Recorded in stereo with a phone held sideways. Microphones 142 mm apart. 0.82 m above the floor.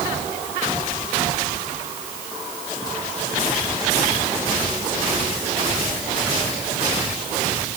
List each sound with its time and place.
Only background noise.